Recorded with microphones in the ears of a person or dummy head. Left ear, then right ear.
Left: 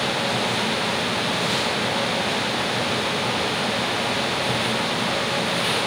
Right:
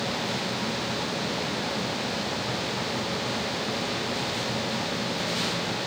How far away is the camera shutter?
No camera shutter in this recording.